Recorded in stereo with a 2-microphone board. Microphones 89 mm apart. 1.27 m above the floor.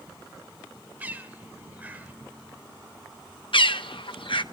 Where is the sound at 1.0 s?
20° right (ahead or behind), 1.9 m.